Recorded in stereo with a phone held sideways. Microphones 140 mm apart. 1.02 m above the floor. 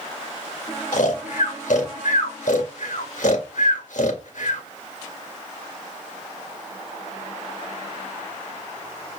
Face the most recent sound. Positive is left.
turn(degrees=70)  # may be behind; listen again after turning